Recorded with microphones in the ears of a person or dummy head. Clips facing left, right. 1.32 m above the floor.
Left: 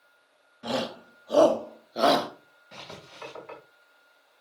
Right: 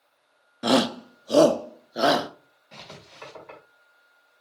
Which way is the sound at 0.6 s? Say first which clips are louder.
Right 9 dB; 65° right (ahead or behind).